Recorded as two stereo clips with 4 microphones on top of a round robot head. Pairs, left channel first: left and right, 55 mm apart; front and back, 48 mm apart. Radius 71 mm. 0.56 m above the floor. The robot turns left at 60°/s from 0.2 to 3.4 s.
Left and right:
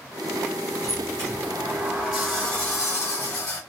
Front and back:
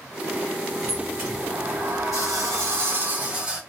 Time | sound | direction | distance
0.8 | a sliding door | 95° right | 2.5 m